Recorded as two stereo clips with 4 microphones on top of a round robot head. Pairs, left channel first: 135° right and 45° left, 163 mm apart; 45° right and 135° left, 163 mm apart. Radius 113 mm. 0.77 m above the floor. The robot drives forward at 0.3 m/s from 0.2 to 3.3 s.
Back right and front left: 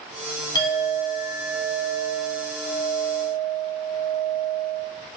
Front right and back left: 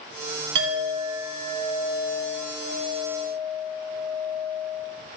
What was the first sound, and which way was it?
A clink, 150° left.